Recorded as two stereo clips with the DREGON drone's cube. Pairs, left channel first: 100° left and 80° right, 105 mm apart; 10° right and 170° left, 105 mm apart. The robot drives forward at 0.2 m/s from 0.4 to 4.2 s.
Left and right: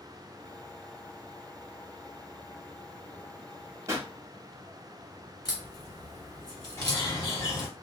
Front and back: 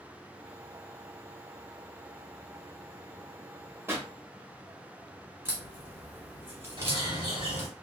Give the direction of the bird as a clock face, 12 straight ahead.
7 o'clock.